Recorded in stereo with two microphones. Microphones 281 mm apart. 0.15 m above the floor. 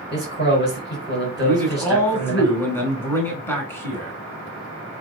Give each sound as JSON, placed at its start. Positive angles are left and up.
{"t": 0.1, "sound": "a man speaking", "side_deg": 40, "distance_m": 1.8}
{"t": 1.4, "sound": "a man speaking", "side_deg": 10, "distance_m": 1.2}